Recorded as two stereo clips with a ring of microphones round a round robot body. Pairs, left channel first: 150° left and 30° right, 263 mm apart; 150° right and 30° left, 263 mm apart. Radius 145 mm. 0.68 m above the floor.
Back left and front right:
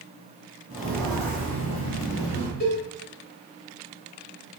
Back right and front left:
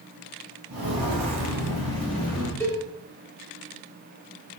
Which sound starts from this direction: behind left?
A cowbell, at 2.6 s.